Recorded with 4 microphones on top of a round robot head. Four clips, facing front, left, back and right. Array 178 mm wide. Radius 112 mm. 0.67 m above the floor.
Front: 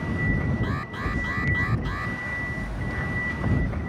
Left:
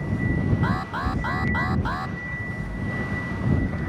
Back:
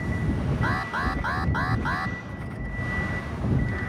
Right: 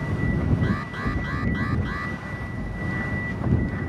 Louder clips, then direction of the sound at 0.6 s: Left 1 dB, back 4 dB; 125° left.